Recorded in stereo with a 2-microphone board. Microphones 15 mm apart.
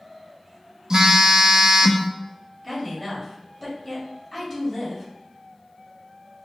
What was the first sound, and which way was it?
A phone buzzing, 40° right (ahead or behind).